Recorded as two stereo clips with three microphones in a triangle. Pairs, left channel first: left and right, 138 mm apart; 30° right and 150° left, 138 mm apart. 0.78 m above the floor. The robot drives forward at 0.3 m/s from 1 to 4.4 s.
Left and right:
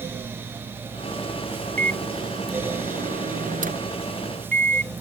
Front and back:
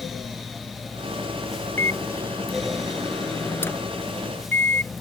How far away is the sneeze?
I don't hear a sneeze.